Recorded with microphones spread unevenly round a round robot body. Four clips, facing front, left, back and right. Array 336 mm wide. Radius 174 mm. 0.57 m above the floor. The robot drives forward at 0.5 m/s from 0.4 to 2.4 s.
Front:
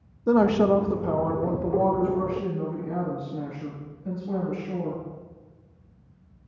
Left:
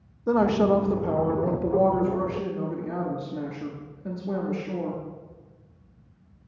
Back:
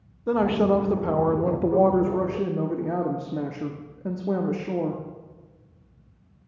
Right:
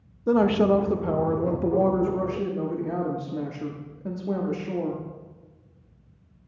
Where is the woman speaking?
20° right, 0.7 m; by 5.0 s 170° right, 1.0 m.